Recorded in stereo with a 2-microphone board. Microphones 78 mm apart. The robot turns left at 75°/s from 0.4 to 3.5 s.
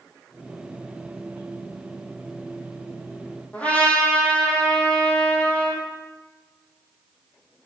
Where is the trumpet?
15° left (ahead or behind), 3 m.